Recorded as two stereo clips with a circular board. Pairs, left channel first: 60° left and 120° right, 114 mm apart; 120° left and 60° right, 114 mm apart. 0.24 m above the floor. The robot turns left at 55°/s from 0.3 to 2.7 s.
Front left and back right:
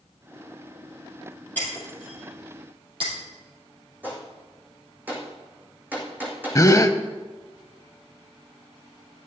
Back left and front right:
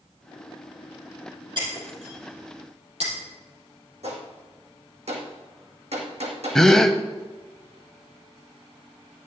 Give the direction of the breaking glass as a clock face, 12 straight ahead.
1 o'clock.